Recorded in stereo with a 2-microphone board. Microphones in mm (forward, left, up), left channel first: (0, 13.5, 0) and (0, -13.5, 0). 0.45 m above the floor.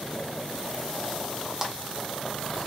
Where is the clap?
10° right (ahead or behind), 1.1 m.